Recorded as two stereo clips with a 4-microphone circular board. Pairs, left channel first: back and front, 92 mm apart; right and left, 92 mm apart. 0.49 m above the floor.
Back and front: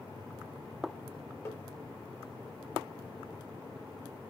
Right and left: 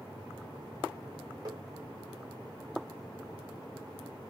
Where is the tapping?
125° left, 1.2 m.